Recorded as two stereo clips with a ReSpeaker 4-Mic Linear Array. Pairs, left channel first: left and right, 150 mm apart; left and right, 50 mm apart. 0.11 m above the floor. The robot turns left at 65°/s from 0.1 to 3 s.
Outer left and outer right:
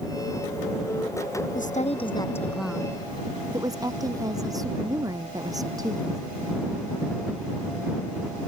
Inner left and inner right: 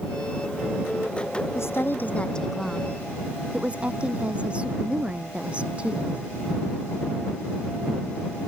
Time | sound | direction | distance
1.6 | a woman speaking | 70° left | ?